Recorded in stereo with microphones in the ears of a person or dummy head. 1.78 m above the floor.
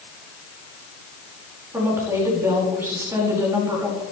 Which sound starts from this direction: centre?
A woman speaking, at 1.7 s.